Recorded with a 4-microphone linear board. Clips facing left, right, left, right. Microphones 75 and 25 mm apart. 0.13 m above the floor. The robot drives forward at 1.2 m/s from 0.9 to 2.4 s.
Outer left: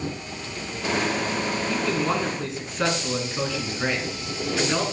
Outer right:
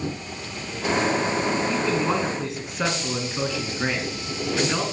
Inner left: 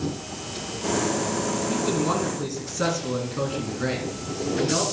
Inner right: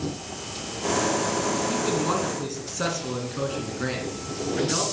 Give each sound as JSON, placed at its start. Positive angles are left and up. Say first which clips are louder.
{"t": 1.7, "sound": "a man speaking", "louder": "outer right 1 dB, inner left 1 dB", "side_deg": -5, "distance_m": 1.1}